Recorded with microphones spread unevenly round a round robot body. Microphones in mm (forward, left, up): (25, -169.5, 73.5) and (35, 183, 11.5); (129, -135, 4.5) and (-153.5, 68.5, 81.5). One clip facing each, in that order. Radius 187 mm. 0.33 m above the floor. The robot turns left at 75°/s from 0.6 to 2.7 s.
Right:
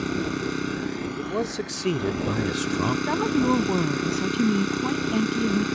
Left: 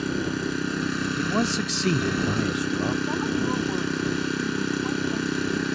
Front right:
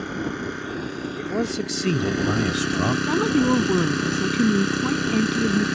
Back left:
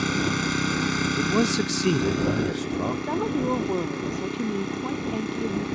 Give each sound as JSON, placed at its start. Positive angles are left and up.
{"t": 0.0, "sound": "an engine running", "azimuth_deg": 165}
{"t": 1.2, "sound": "a man speaking", "azimuth_deg": 95}
{"t": 3.1, "sound": "a woman speaking", "azimuth_deg": -70}